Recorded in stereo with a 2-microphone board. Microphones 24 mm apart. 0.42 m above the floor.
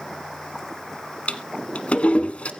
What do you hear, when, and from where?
1.3 s a toilet flushing: 60° left (ahead or behind), 1.2 m